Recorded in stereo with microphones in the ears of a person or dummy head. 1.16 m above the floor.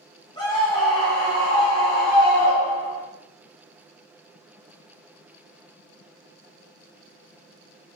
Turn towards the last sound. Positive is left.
turn(degrees=15)  # may be behind; listen again after turning